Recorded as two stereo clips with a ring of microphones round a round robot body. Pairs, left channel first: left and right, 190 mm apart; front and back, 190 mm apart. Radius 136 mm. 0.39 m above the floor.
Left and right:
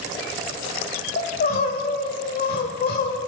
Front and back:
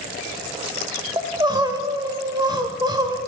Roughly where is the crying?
Behind left.